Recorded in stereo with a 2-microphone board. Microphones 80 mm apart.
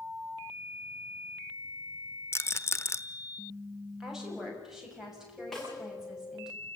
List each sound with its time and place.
2.3 s a rattle: 30° left (ahead or behind), 0.9 m
4.0 s a woman speaking: 5° right (ahead or behind), 6.5 m
5.5 s a snare drum: 5° left (ahead or behind), 9.5 m